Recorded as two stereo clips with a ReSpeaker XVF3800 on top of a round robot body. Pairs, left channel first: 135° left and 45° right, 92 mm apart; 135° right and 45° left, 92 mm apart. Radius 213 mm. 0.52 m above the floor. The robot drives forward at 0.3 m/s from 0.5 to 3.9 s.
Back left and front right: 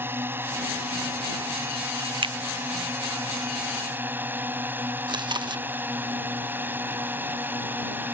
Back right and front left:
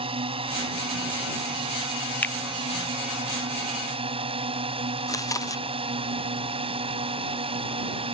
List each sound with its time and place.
0.0 s a drone: 25° left
2.2 s a finger snap: 65° right
5.1 s chewing: 80° right